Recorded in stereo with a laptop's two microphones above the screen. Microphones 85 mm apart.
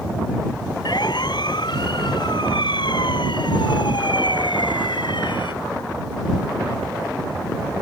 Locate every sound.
0.8 s a siren: 60° left (ahead or behind); by 5.5 s 75° left (ahead or behind)